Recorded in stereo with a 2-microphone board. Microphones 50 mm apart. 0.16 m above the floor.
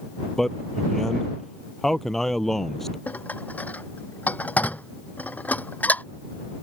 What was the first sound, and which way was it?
A man speaking, 5° left (ahead or behind).